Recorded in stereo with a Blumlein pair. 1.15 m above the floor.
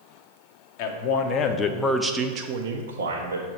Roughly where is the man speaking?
Ahead left.